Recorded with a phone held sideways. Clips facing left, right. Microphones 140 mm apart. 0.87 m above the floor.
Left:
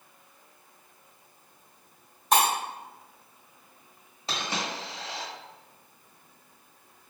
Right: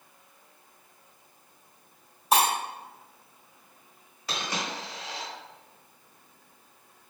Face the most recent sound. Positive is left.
turn(degrees=25)  # may be behind; listen again after turning